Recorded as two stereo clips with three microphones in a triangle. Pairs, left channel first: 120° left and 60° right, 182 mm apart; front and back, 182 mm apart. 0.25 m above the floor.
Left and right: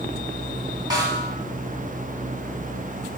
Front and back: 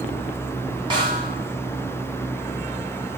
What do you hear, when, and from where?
0.9 s a snare drum: 125° right, 2.5 m